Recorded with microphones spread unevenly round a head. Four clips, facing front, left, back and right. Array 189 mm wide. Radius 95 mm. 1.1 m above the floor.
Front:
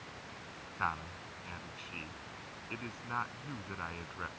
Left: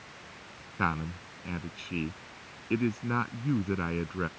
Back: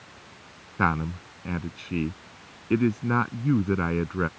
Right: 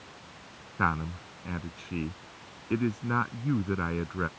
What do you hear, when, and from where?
0.8 s a man speaking: straight behind